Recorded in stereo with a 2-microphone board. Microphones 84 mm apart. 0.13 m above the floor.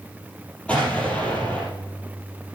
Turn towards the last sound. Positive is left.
turn(degrees=15)  # may be behind; listen again after turning